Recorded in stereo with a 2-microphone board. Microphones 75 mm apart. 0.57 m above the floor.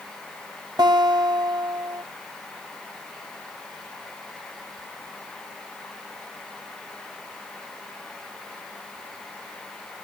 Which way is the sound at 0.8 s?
65° right (ahead or behind).